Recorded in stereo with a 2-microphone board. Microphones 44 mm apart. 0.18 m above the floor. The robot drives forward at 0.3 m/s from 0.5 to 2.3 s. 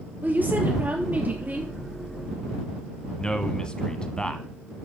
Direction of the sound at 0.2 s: 40° right (ahead or behind).